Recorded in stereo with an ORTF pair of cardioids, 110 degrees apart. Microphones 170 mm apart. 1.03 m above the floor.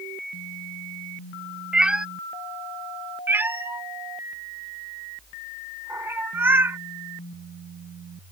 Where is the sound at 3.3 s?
15° right.